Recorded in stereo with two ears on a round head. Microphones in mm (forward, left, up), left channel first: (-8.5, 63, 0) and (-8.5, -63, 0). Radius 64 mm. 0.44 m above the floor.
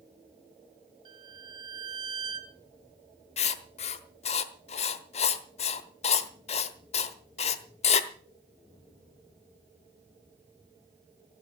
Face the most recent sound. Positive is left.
turn(degrees=45)  # may be behind; listen again after turning